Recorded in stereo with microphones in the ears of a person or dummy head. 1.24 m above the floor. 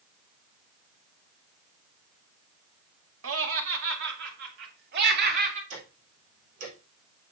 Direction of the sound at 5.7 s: 85° right.